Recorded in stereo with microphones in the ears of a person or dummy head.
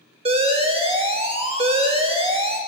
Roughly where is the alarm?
Right.